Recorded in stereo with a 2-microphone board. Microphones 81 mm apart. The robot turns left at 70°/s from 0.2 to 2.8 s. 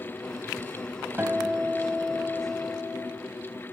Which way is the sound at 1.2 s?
25° right (ahead or behind).